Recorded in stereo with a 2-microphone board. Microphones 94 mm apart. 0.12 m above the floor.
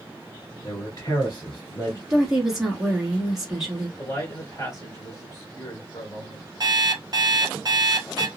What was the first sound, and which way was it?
A man speaking, 40° left (ahead or behind).